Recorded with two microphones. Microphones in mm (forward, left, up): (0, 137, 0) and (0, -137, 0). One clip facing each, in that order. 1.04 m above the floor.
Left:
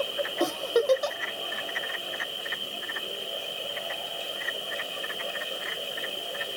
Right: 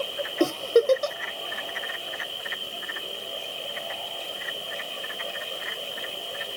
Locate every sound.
0.4 s a giggle: 30° right (ahead or behind), 0.6 m